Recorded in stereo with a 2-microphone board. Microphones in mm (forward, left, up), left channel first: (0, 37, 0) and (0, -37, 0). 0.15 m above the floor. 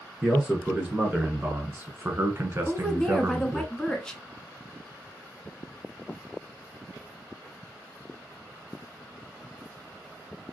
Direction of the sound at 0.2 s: 15° right (ahead or behind).